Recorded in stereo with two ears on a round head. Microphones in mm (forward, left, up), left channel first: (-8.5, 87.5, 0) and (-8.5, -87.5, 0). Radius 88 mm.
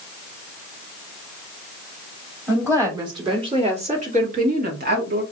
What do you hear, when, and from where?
2.5 s a woman speaking: 15° right (ahead or behind), 2 m; by 5.2 s 60° right (ahead or behind), 1.8 m